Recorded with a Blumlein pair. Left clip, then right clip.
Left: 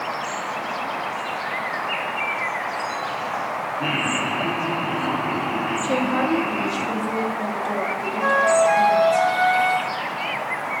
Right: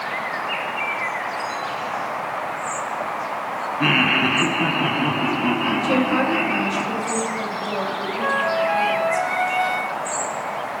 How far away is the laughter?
About 1.0 m.